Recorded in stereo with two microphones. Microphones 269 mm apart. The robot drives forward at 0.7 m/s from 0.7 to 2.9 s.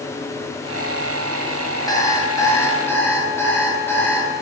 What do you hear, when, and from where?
1.9 s an alarm clock: 15° left (ahead or behind), 0.9 m; by 4.3 s 10° left (ahead or behind), 1.5 m